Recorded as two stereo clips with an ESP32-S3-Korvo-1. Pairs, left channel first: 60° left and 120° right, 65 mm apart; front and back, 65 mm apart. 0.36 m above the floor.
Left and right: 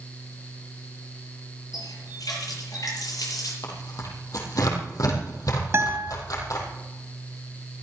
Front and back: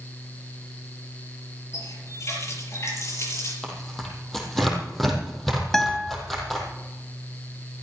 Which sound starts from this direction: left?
Tearing paper, at 3.6 s.